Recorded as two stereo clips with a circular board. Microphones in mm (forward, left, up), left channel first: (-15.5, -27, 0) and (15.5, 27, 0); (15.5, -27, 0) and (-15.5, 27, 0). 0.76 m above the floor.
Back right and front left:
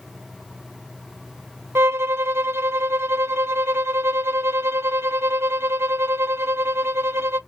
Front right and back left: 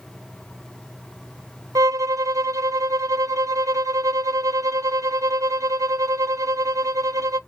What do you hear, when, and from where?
1.8 s a violin: 105° left, 0.5 m